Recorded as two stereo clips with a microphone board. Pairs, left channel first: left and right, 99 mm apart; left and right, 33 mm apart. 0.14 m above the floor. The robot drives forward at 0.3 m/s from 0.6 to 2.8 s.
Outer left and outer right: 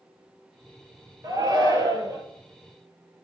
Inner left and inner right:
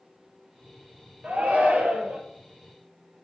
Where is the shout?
40° right (ahead or behind), 3 m; by 2.2 s 35° right (ahead or behind), 3 m.